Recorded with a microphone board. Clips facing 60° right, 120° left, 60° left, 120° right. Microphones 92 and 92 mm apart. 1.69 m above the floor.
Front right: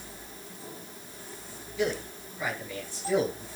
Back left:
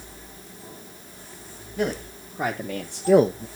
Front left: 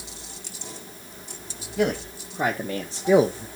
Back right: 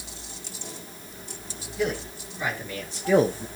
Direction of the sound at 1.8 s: 70° left.